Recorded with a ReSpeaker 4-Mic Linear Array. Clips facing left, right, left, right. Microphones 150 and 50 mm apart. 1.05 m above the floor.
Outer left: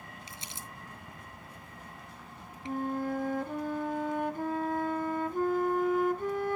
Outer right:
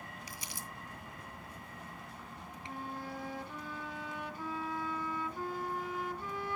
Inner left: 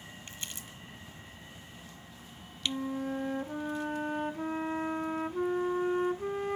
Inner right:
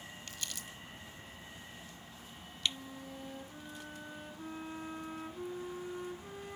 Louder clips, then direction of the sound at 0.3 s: Even, inner left 1 dB; 25° left (ahead or behind).